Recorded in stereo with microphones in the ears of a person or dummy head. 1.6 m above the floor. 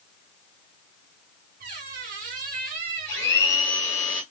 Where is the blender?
15° left (ahead or behind), 2 m.